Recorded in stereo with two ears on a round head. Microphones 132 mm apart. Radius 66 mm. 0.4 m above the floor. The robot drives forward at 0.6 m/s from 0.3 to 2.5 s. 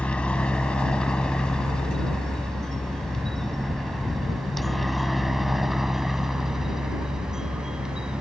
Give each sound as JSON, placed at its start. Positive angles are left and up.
{"t": 0.0, "sound": "a helicopter", "side_deg": 5}